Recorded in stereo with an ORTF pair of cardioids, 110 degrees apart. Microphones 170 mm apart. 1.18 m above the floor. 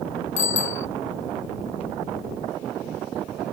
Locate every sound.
0.4 s a bicycle bell: 45° left